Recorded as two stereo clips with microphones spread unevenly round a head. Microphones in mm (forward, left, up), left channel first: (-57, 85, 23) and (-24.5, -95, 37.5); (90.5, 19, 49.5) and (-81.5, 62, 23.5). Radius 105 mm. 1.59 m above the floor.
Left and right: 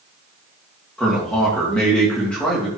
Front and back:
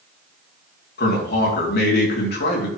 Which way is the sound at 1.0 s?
15° left.